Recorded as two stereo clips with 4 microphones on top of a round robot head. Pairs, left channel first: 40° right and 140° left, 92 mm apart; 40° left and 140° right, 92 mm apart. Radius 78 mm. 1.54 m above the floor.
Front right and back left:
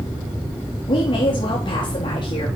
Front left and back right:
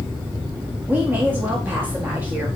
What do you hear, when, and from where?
0.9 s a woman speaking: 70° right, 1.6 m